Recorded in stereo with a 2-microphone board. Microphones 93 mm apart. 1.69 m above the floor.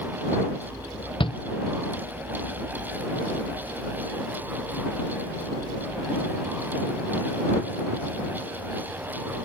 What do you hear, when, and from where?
1.2 s a shout: 65° left (ahead or behind)